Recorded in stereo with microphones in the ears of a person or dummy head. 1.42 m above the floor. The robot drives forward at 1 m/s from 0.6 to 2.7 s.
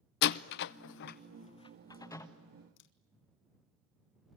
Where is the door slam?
60° left (ahead or behind), 0.6 m; by 2.3 s 20° left (ahead or behind), 1.6 m.